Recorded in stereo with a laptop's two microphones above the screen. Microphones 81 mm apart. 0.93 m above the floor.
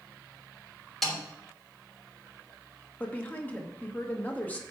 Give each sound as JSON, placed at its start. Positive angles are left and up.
{"t": 1.0, "sound": "a snare drum", "side_deg": 5, "distance_m": 3.0}
{"t": 3.0, "sound": "a woman speaking", "side_deg": 20, "distance_m": 1.1}